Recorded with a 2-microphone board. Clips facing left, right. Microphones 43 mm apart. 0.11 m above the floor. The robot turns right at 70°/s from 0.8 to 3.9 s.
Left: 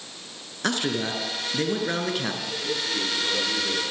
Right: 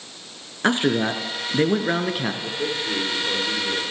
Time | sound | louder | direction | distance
0.6 | a man speaking | right 6 dB | 125° right | 1.4 m
2.4 | a man speaking | right 3 dB | 90° right | 7 m